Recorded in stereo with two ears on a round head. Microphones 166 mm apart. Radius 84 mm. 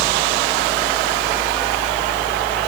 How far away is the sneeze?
I don't hear a sneeze.